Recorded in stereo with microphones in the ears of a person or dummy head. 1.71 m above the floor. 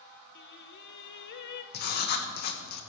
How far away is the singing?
About 0.5 m.